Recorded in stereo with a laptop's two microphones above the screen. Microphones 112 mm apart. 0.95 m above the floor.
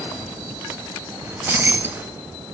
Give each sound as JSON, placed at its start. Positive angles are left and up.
{"t": 1.2, "sound": "keys jangling", "side_deg": -20, "distance_m": 0.6}